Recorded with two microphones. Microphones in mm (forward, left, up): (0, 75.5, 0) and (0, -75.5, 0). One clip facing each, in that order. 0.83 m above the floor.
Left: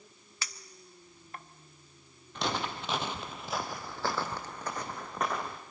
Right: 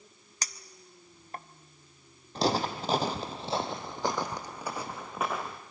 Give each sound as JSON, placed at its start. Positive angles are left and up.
{"t": 0.4, "sound": "a clink", "side_deg": -40, "distance_m": 0.6}
{"t": 2.4, "sound": "footsteps", "side_deg": -35, "distance_m": 1.2}